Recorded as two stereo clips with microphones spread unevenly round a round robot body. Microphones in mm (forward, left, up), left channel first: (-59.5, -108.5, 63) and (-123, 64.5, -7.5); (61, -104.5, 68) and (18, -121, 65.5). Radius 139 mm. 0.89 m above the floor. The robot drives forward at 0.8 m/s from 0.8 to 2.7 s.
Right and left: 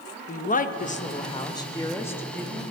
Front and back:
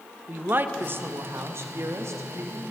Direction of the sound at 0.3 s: 130° right.